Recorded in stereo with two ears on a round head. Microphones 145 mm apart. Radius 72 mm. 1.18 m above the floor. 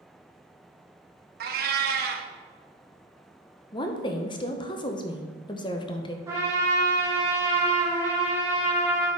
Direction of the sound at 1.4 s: 60° right (ahead or behind).